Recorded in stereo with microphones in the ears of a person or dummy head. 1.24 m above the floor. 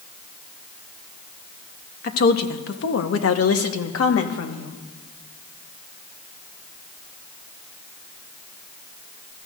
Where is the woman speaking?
45° left (ahead or behind), 1.0 m; by 4.8 s 70° left (ahead or behind), 1.8 m.